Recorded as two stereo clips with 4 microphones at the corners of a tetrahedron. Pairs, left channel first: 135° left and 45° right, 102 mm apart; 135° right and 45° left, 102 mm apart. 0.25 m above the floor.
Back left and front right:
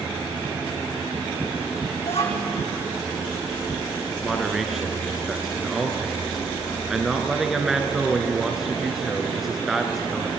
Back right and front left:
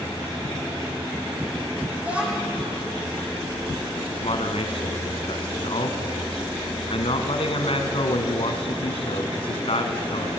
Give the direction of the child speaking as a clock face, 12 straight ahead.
8 o'clock.